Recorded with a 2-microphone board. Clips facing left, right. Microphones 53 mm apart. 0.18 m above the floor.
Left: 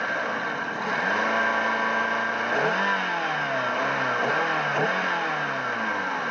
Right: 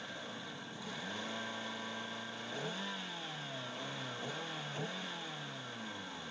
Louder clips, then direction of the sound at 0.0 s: Left 19 dB; 65° left (ahead or behind).